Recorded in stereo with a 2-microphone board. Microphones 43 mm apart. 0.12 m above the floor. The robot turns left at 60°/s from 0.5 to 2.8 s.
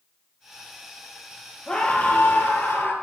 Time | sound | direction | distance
1.7 | a scream | 160° left | 2 m